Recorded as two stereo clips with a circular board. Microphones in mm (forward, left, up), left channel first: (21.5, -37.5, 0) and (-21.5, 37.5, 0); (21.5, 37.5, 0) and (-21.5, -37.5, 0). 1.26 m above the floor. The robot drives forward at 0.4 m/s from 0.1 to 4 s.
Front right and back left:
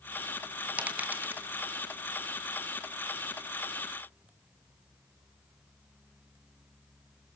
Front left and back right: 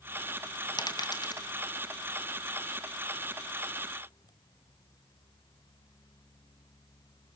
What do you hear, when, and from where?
0.8 s a dropped coin: 50° left, 1.8 m; by 1.5 s 60° left, 1.7 m